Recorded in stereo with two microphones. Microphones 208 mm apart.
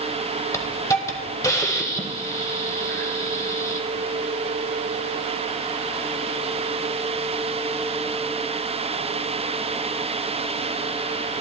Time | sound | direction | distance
0.5 | a hiss | 15° left (ahead or behind) | 1.0 m